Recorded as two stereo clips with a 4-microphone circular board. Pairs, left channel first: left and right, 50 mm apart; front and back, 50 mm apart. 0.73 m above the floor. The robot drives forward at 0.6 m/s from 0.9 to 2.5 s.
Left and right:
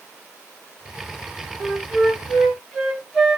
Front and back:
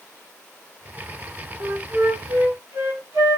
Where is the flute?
175° left, 0.8 m.